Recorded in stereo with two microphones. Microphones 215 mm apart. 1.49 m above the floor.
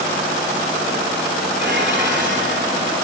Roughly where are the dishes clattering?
Right.